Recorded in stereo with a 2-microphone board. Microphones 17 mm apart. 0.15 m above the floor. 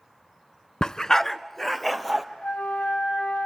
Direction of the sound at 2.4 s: 75° left (ahead or behind).